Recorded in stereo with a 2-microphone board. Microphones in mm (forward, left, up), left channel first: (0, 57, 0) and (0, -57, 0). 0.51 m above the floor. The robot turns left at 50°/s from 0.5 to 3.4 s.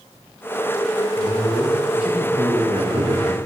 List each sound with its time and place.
1.2 s a man speaking: 30° left, 1.3 m; by 3.4 s 80° right, 1.3 m